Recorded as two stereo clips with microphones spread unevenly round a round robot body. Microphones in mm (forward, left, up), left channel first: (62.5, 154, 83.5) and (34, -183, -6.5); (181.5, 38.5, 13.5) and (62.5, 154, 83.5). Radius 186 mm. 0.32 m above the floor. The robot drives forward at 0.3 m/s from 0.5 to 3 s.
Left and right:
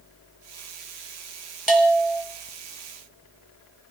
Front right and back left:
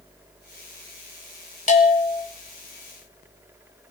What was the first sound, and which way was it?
A bell, 5° right.